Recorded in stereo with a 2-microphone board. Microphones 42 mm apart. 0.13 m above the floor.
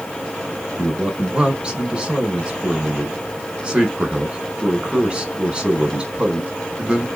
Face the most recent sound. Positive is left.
turn(degrees=-20)  # may be behind; listen again after turning